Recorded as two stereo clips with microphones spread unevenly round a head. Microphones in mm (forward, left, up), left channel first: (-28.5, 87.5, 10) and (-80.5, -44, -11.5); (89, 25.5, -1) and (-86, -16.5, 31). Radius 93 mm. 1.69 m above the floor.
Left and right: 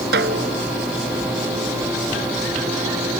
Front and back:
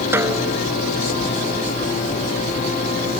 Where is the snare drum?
90° right.